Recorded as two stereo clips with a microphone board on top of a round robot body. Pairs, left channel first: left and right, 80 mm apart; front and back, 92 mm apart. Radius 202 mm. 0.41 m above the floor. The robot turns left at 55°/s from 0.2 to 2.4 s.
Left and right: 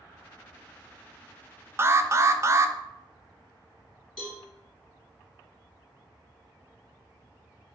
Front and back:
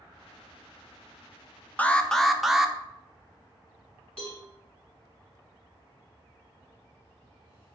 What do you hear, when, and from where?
1.8 s an alarm: 60° right, 0.6 m; by 2.8 s 95° right, 0.6 m
4.2 s a cowbell: 5° left, 1.4 m